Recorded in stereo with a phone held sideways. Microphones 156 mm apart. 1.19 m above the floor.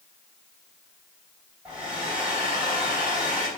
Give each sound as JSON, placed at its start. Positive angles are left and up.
{"t": 1.6, "sound": "a hair dryer", "side_deg": -10, "distance_m": 3.0}